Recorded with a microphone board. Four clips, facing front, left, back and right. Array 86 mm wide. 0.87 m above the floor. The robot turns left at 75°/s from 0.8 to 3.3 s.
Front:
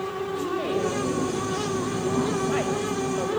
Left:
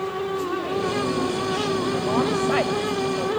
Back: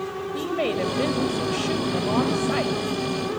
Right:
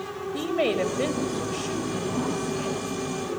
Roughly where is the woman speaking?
Behind right.